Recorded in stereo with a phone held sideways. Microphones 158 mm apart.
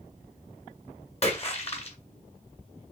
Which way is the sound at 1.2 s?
40° left (ahead or behind).